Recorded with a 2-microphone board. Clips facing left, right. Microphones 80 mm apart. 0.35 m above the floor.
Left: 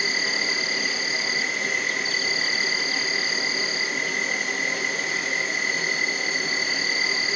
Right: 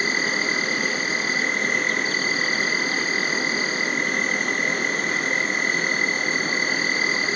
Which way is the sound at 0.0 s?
45° right (ahead or behind).